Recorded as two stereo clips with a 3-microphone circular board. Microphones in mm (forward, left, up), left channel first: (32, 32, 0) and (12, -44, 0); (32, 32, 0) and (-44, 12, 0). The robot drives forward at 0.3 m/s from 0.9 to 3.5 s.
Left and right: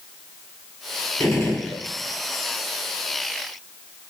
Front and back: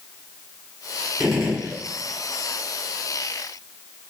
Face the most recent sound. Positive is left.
turn(degrees=125)